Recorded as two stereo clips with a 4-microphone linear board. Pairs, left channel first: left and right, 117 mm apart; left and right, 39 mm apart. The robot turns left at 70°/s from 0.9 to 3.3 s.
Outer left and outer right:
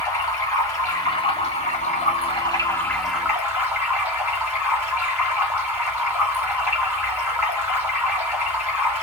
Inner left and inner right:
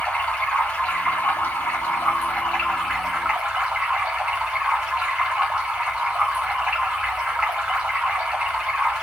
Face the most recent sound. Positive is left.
turn(degrees=-20)